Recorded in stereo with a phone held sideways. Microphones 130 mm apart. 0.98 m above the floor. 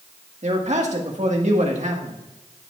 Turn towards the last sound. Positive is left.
turn(degrees=-60)  # may be behind; listen again after turning